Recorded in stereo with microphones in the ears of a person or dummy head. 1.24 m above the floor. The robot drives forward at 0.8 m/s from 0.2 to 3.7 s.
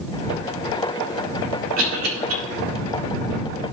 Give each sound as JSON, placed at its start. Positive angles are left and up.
{"t": 1.8, "sound": "a cough", "side_deg": -85, "distance_m": 4.0}